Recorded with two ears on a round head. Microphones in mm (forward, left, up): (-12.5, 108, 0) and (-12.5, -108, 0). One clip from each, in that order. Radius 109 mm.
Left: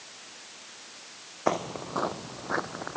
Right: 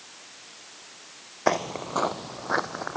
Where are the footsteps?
25° right (ahead or behind); by 3.0 s 35° right (ahead or behind).